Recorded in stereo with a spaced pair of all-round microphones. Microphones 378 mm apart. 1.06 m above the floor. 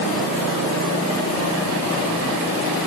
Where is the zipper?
I don't hear a zipper.